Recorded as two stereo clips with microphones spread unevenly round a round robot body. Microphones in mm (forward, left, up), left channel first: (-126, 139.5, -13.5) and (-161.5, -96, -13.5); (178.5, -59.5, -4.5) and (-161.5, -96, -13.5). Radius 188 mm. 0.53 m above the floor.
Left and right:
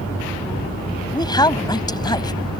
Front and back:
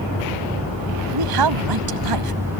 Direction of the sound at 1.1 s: 155° left.